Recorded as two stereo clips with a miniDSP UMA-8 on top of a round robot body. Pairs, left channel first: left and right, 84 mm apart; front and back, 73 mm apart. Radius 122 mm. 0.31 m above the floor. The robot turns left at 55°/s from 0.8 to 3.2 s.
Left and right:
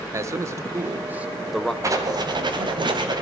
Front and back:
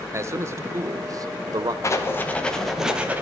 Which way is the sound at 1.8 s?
45° right.